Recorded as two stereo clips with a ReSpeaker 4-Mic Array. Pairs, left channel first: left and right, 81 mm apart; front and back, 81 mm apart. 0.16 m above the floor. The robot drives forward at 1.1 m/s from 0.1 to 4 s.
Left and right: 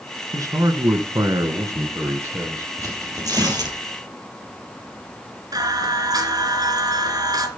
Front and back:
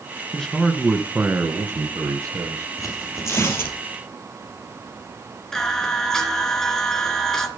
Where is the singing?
80° right, 2.5 m.